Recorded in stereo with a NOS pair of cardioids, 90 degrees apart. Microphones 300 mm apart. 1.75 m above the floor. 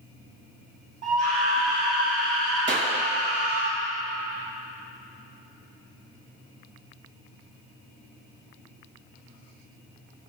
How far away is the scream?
About 2.5 m.